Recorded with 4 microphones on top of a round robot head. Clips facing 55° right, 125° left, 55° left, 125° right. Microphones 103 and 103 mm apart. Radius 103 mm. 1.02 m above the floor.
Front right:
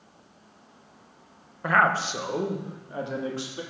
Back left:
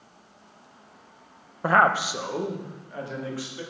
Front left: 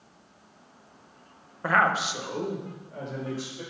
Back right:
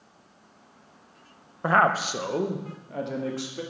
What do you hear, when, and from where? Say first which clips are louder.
1.6 s a man speaking: back left 2 dB, back right 2 dB; 170° left, 1.0 m; by 3.6 s 115° right, 2.5 m